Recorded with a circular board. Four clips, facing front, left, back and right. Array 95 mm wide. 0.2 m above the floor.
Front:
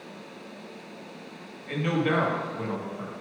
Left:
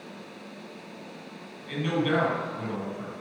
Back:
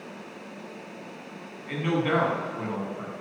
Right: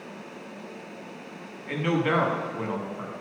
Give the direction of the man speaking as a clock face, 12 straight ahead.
3 o'clock.